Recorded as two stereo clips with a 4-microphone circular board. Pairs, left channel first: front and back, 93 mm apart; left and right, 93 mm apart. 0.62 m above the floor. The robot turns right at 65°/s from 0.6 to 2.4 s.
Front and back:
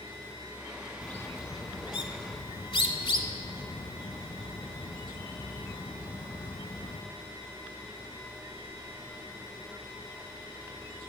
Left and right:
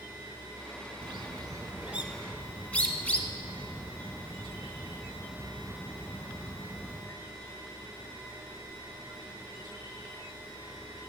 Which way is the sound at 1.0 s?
75° right.